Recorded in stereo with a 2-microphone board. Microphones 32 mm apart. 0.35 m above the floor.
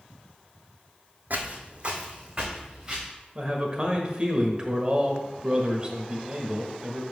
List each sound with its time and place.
1.3 s footsteps: 65° right (ahead or behind), 1.0 m; by 3.1 s 20° right (ahead or behind), 2.5 m
3.4 s a man speaking: 25° right (ahead or behind), 1.2 m